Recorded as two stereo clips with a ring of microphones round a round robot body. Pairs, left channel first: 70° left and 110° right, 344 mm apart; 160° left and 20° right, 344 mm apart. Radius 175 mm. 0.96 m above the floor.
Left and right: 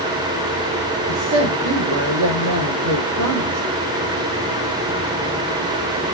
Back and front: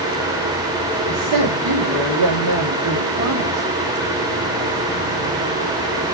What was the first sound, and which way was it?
A woman speaking, 70° right.